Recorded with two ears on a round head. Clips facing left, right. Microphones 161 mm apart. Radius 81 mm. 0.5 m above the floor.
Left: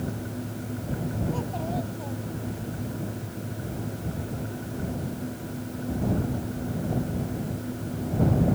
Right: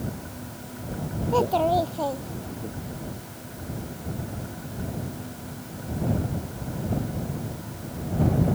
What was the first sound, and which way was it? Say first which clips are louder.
A child speaking: right 9 dB; 80° right.